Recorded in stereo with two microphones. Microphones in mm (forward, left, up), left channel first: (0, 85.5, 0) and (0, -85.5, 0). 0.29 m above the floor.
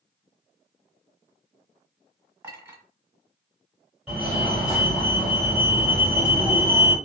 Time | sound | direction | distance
2.4 | a clink | 10° right (ahead or behind) | 1.2 m
4.1 | a fire alarm | 5° right (ahead or behind) | 1.8 m